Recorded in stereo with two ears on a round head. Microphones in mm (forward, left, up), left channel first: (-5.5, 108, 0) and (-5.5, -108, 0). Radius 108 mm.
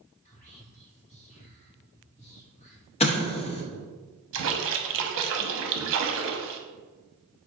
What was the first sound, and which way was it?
Whispering, 30° left (ahead or behind).